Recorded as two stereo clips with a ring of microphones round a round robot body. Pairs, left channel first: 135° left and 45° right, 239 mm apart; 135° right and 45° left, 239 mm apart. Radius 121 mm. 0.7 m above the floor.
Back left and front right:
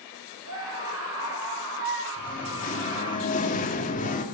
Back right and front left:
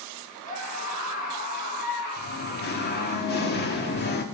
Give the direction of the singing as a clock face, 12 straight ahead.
6 o'clock.